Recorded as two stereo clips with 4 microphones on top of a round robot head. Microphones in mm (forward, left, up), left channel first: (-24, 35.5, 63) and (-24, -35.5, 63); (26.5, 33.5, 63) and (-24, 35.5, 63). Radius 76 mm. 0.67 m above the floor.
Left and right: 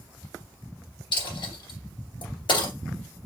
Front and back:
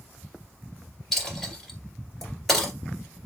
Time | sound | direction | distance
1.1 | a dropped coin | 85° left | 2.5 m